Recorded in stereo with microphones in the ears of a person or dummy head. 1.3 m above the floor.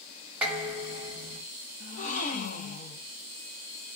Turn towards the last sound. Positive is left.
turn(degrees=45)  # may be behind; listen again after turning